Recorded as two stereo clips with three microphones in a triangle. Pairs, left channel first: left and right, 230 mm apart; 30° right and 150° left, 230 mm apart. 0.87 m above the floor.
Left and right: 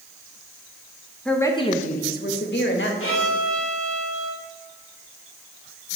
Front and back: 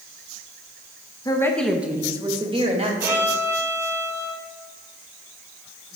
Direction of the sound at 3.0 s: 75° left.